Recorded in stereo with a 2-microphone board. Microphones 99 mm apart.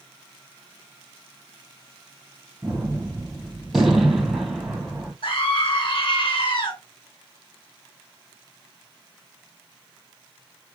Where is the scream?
55° left (ahead or behind), 4.5 m.